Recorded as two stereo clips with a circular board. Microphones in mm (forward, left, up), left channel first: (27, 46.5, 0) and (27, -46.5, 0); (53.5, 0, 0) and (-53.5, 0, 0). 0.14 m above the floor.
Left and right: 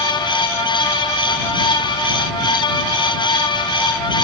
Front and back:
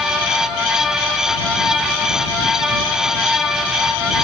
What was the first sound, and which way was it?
Only background noise.